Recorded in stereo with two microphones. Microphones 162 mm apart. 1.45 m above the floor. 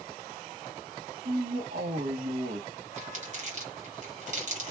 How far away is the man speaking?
About 1.3 m.